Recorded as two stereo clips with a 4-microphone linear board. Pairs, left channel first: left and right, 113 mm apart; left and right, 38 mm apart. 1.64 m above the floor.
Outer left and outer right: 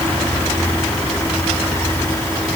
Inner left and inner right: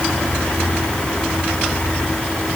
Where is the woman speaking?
No woman speaking in this recording.